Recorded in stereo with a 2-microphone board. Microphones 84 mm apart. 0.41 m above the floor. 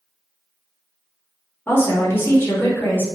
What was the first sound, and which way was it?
A woman speaking, 25° left (ahead or behind).